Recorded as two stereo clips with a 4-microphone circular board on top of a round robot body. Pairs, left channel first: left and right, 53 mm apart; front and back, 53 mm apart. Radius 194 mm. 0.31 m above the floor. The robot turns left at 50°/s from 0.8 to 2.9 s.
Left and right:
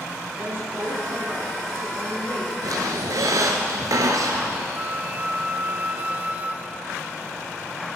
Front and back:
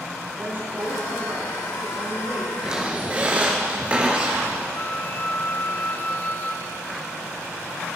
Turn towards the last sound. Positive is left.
turn(degrees=-40)